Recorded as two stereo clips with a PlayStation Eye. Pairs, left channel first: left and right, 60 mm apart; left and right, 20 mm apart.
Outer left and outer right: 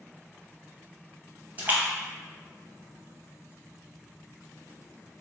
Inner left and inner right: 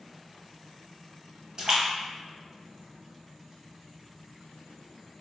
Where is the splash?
30° right (ahead or behind), 0.8 m.